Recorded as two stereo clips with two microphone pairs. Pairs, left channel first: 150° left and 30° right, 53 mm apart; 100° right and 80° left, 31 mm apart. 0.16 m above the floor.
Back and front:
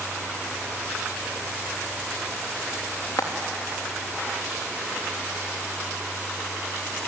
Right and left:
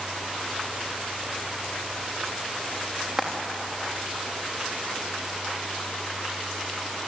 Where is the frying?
150° left, 5 m.